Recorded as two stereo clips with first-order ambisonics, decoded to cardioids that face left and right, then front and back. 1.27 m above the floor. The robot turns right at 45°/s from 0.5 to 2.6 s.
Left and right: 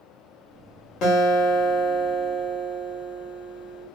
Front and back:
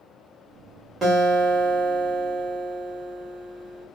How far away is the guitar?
About 1.3 m.